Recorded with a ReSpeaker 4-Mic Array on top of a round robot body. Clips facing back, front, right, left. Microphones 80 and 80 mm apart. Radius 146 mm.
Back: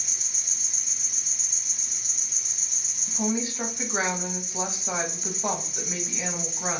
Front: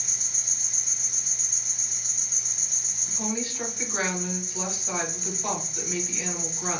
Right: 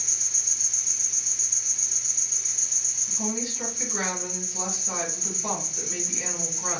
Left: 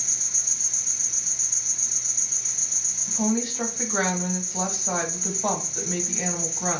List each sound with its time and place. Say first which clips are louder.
0.0 s an insect: front 1 dB, left 2 dB; 50° left, 1.5 m
3.1 s a woman speaking: back 4 dB, left 6 dB; 115° left, 1.0 m